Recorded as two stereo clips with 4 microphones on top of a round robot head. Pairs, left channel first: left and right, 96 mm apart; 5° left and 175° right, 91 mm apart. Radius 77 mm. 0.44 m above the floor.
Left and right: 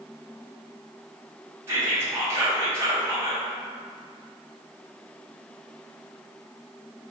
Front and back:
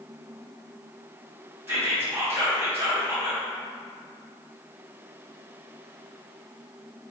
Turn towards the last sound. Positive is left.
turn(degrees=-135)